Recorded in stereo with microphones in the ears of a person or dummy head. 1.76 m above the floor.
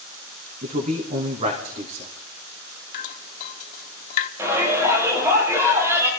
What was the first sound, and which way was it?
A man speaking, 40° right (ahead or behind).